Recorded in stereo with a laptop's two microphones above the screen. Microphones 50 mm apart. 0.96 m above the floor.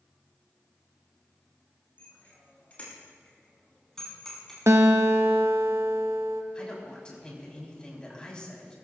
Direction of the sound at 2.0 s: 35° left (ahead or behind).